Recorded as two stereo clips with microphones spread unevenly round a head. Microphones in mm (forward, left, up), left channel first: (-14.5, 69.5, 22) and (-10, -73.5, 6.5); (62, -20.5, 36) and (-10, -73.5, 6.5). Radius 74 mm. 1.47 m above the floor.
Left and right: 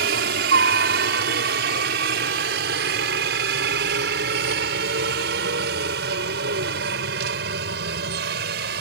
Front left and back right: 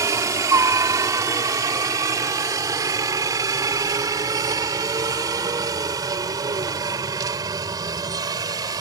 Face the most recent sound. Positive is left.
turn(degrees=-100)